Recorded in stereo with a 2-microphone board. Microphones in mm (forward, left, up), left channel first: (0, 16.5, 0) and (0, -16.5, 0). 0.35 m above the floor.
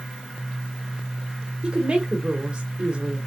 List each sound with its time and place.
1.6 s a woman speaking: 35° right (ahead or behind), 1.1 m